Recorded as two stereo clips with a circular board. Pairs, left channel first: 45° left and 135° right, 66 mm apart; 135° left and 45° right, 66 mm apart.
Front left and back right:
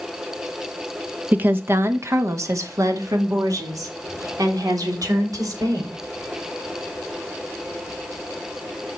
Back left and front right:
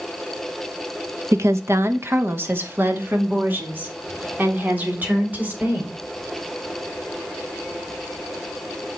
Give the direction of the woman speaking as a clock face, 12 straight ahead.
3 o'clock.